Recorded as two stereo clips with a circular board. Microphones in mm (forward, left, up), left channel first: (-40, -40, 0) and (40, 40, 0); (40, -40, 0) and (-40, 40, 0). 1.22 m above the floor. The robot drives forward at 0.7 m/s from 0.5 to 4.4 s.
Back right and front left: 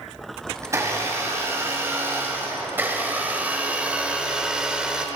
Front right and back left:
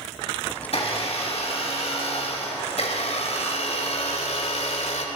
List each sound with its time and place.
0.6 s a blender: 20° right, 5 m; by 5.1 s 35° right, 2.5 m